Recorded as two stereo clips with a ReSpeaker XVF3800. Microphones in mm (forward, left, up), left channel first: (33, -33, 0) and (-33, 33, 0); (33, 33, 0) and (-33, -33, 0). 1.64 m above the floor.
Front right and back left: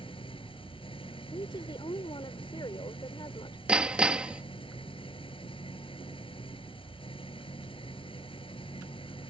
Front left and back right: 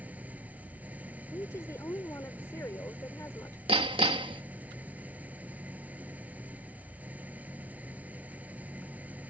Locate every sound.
0.0 s an engine running: 60° right
1.3 s a woman speaking: 15° right
3.7 s hammering: 145° right